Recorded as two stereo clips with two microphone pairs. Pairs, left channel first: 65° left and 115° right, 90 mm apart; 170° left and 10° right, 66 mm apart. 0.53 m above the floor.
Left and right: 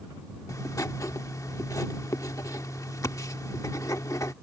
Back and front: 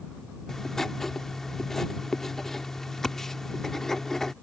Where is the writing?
90° left.